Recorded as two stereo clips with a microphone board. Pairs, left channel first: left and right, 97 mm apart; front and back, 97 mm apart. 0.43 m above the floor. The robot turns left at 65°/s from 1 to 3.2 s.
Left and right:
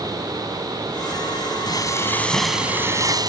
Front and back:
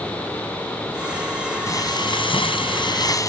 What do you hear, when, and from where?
1.7 s frying: 55° left; by 3.3 s 45° right